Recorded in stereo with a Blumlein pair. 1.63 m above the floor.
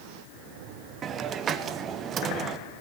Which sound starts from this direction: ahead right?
A hiss, at 1.0 s.